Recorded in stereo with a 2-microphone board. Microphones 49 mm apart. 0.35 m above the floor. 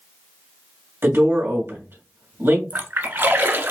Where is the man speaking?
55° right (ahead or behind), 2 m.